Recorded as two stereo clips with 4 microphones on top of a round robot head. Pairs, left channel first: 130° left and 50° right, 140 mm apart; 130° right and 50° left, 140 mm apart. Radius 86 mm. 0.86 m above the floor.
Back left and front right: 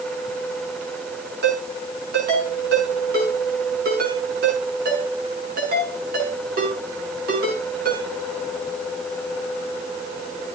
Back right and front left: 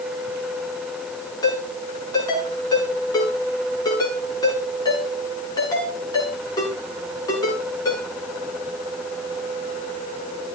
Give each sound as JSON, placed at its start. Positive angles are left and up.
{"t": 1.4, "sound": "a ringtone", "azimuth_deg": -65, "distance_m": 7.0}